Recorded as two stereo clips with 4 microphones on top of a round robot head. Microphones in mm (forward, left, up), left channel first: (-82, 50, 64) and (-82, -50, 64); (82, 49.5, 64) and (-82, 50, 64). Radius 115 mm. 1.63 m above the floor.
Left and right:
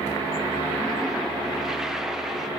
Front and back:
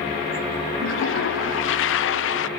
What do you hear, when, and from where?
0.8 s a toilet flushing: 5° right, 0.7 m